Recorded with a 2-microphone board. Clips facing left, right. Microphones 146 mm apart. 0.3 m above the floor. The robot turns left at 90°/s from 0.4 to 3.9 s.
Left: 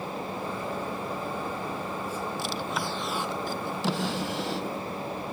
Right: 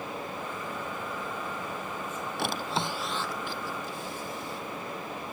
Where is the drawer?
120° right; by 4.8 s 105° left.